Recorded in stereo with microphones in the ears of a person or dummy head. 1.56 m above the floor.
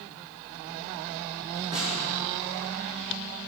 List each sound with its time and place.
1.7 s a snare drum: 30° right (ahead or behind), 4.5 m